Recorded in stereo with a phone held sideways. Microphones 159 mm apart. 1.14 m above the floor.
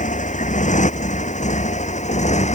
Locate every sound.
0.0 s a motorcycle: 50° left (ahead or behind); by 2.6 s 45° left (ahead or behind)